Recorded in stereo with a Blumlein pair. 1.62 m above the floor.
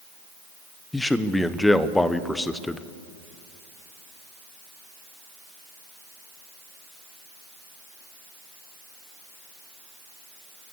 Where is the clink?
No clink in this recording.